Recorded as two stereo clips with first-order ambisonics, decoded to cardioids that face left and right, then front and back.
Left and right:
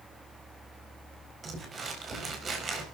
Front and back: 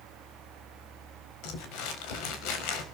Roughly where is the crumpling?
Ahead.